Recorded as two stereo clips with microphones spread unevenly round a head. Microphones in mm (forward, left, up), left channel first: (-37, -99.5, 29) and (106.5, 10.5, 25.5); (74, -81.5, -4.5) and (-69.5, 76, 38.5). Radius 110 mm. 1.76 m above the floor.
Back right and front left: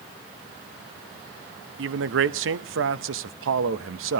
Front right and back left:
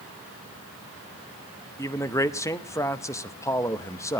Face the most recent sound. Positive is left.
turn(degrees=30)